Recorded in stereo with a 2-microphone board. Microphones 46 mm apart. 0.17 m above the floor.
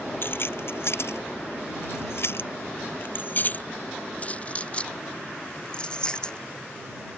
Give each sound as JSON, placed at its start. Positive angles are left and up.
{"t": 0.2, "sound": "keys jangling", "side_deg": 55}